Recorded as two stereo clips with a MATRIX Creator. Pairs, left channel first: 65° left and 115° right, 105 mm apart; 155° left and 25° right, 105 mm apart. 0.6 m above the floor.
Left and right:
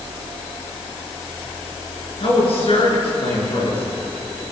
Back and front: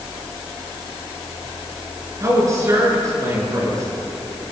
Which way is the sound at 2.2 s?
35° left.